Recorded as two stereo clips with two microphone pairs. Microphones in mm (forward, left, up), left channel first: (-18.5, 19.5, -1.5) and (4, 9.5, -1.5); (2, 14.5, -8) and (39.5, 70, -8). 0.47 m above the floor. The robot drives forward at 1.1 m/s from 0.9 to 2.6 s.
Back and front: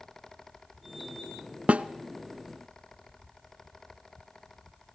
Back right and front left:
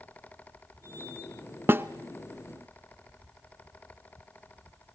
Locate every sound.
1.7 s a snare drum: 5° left, 0.8 m